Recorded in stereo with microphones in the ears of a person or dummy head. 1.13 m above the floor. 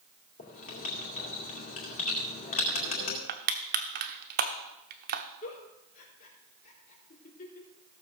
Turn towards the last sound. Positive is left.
turn(degrees=50)  # may be behind; listen again after turning